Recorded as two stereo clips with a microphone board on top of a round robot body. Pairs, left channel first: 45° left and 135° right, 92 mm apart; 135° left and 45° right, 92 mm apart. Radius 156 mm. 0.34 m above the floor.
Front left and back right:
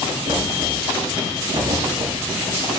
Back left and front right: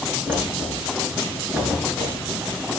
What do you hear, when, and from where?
0.3 s knocking: 115° right, 5.5 m